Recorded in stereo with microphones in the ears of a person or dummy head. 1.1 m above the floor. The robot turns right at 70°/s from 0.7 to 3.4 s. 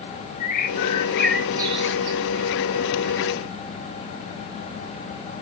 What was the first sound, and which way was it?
A bird, 135° left.